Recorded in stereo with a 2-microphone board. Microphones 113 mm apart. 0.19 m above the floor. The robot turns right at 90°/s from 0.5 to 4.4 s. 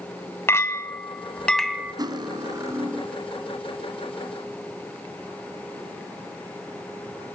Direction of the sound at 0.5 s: 25° left (ahead or behind).